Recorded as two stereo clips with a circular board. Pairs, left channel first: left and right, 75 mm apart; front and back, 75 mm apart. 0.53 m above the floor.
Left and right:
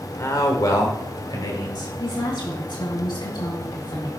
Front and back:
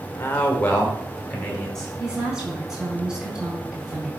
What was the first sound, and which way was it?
A man speaking, 55° left.